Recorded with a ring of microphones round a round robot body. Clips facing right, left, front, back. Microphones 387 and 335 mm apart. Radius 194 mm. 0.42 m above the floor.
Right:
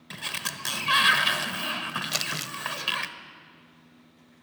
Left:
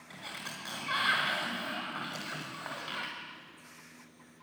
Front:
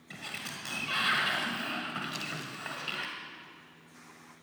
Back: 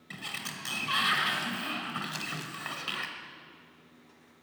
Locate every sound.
0.1 s a sliding door: 105° right, 1.3 m
2.1 s crumpling: 100° right, 0.7 m